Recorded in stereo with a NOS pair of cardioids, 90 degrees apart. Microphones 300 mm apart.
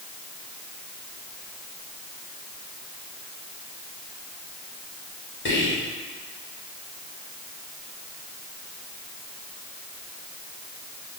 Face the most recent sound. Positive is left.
turn(degrees=40)